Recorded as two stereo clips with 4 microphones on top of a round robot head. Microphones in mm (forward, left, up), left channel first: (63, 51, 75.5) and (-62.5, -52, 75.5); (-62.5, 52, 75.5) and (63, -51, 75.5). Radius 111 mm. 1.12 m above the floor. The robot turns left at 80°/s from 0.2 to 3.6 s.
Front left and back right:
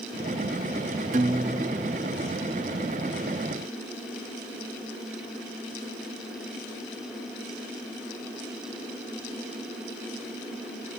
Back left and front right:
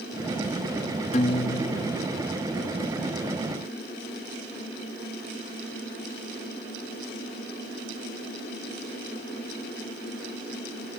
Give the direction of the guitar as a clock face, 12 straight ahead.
6 o'clock.